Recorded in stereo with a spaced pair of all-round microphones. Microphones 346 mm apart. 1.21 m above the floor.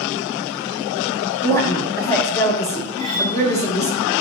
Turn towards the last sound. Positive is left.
turn(degrees=-80)